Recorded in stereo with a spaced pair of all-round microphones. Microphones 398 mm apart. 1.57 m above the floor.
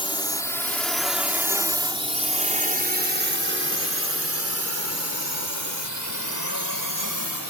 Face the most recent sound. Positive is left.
turn(degrees=-55)  # may be behind; listen again after turning